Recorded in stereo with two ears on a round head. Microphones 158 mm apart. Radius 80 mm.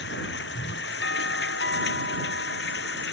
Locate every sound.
0.0 s running water: 65° left (ahead or behind)
1.0 s a doorbell: 65° left (ahead or behind)